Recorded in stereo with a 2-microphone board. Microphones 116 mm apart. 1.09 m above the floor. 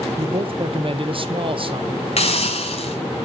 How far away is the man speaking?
About 0.9 m.